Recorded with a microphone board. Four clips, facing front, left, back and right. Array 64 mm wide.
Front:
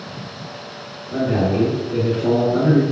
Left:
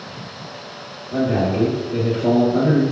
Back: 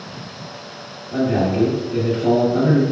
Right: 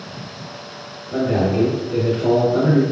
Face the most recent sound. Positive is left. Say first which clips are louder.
# right 1 dB, even
turn(degrees=-15)